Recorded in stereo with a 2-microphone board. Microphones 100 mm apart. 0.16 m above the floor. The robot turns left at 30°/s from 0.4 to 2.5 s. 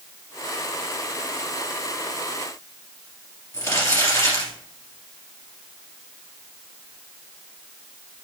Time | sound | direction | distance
3.5 | crumpling | 35° left (ahead or behind) | 2.5 m